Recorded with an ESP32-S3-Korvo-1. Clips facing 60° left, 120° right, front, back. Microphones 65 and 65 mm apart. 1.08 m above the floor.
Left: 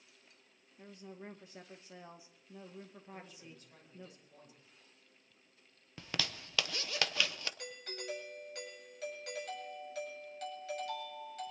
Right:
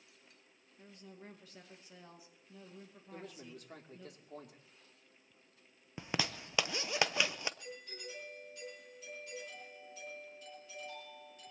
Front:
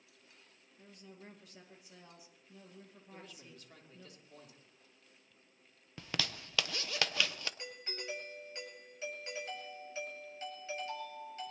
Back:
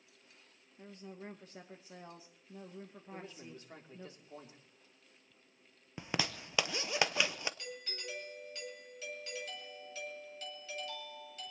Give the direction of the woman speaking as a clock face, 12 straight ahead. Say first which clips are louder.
Left 4 dB, back 6 dB; 8 o'clock.